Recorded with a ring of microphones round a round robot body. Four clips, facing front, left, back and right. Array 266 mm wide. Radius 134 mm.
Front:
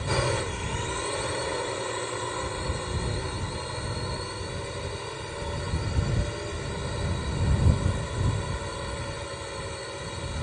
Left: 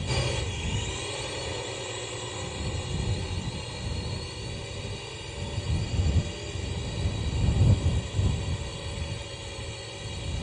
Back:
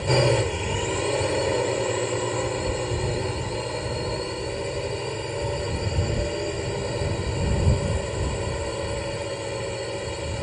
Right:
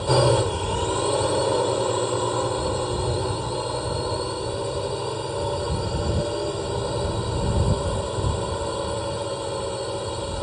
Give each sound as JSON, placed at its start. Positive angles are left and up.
{"t": 0.0, "sound": "a drone", "azimuth_deg": -120}